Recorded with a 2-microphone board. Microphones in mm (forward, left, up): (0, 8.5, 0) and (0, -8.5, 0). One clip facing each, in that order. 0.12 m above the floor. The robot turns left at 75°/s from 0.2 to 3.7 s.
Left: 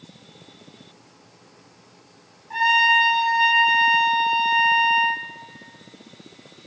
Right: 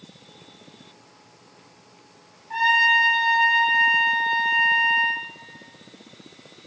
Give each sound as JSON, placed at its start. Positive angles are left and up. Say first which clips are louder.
{"t": 2.5, "sound": "a trumpet", "louder": "left 1 dB", "azimuth_deg": 180, "distance_m": 0.6}